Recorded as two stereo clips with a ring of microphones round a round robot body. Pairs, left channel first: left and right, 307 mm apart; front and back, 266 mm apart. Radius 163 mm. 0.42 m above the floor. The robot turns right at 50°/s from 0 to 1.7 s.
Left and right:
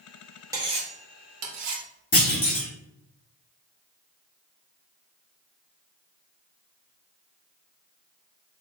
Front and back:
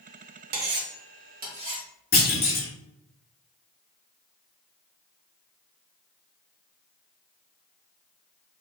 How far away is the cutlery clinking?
About 0.7 m.